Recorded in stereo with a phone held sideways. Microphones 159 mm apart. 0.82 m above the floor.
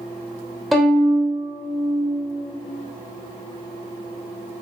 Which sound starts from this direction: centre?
A violin, at 0.7 s.